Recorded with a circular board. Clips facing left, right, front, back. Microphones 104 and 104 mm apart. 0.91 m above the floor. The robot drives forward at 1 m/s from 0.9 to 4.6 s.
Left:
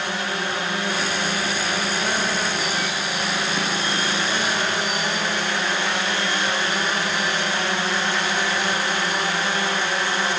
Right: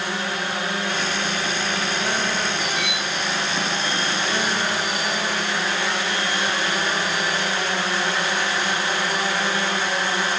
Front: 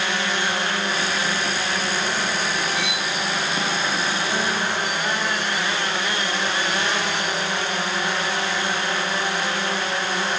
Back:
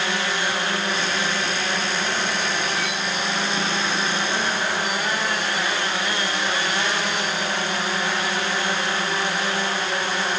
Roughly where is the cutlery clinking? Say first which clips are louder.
Even, even; behind left.